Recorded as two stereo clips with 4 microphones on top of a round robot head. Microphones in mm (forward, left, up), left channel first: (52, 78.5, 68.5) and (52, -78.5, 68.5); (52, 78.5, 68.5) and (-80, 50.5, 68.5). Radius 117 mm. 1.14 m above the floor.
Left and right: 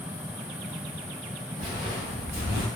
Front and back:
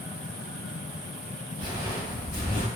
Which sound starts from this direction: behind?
Footsteps, at 1.6 s.